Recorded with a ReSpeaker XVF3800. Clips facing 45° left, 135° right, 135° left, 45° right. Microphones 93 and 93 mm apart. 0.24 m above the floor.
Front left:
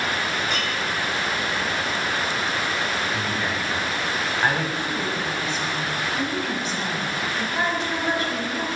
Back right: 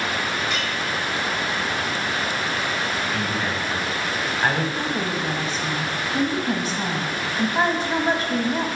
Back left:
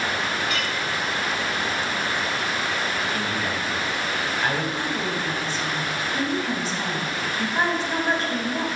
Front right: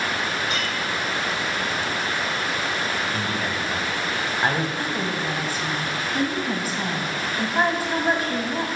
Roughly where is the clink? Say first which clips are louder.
Even, even; ahead.